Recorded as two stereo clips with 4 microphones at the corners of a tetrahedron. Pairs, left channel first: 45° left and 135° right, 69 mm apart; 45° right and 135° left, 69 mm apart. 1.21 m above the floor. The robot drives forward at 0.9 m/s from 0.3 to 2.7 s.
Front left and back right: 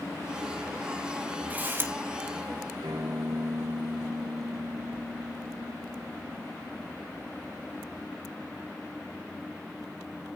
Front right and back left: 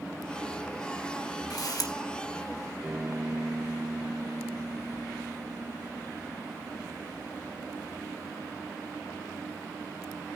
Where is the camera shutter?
70° right, 1.8 m; by 1.9 s 80° right, 1.7 m.